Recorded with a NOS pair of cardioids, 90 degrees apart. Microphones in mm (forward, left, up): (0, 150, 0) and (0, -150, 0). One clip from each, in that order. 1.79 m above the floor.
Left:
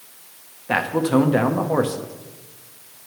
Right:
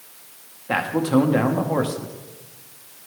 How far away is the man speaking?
About 0.9 m.